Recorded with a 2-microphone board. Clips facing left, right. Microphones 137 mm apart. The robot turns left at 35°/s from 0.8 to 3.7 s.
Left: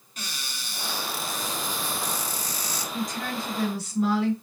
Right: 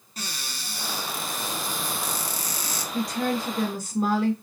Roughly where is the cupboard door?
Ahead right.